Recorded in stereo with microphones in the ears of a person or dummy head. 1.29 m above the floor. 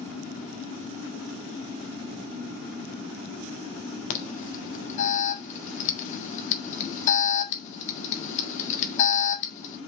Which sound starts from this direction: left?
An alarm, at 4.1 s.